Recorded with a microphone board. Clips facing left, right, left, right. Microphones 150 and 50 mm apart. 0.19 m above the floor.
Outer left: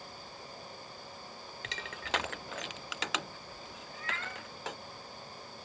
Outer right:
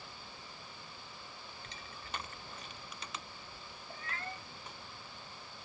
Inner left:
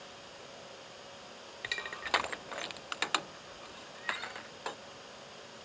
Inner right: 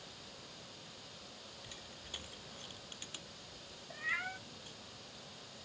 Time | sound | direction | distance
1.6 | crushing | 85° left | ?
3.9 | a cat meowing | 30° right (ahead or behind) | ?